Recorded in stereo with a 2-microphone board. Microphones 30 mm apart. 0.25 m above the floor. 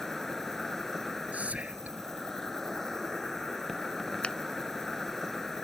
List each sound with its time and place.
0.0 s an insect: 15° left (ahead or behind)
1.3 s whispering: 40° right (ahead or behind)
4.2 s a finger snap: 30° left (ahead or behind)